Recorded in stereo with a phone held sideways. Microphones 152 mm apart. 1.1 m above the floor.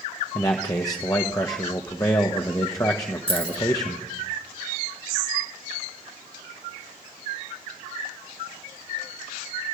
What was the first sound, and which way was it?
A man speaking, 25° left (ahead or behind).